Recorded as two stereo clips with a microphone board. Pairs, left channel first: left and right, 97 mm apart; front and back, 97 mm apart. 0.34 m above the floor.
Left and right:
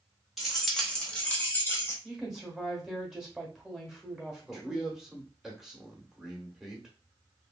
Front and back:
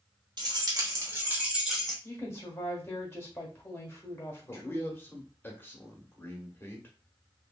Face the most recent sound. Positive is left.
turn(degrees=-10)